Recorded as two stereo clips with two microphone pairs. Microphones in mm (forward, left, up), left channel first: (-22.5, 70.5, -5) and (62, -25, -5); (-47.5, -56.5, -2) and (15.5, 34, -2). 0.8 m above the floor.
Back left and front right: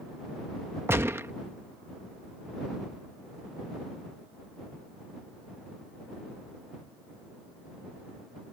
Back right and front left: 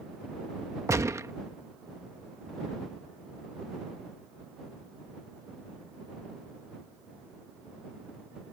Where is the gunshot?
10° left.